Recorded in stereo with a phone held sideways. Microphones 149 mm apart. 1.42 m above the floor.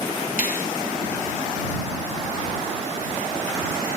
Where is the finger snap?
85° left.